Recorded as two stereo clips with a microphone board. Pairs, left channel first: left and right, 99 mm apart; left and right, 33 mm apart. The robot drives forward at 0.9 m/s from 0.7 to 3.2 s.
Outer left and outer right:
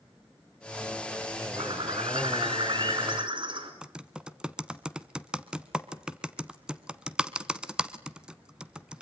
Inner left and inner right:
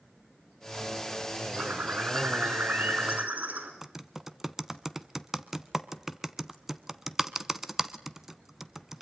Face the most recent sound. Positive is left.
turn(degrees=-10)  # may be behind; listen again after turning